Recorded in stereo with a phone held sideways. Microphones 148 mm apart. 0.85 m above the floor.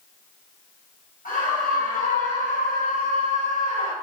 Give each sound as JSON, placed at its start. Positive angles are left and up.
{"t": 1.2, "sound": "a scream", "side_deg": 70, "distance_m": 5.5}